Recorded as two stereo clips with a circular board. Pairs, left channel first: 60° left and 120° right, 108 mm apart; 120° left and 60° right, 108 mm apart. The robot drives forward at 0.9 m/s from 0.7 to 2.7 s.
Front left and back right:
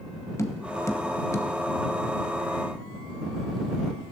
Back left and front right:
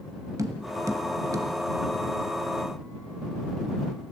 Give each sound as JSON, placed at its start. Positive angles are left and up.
{"t": 0.4, "sound": "tapping", "azimuth_deg": 0, "distance_m": 1.6}